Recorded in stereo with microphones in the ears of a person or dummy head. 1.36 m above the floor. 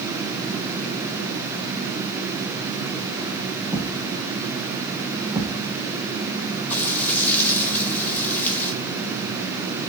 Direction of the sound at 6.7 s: 10° left (ahead or behind).